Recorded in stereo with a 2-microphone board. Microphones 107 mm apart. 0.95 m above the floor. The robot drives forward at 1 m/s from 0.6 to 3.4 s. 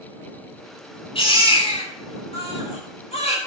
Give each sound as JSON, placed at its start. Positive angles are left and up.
{"t": 1.1, "sound": "a baby crying", "side_deg": 55, "distance_m": 6.0}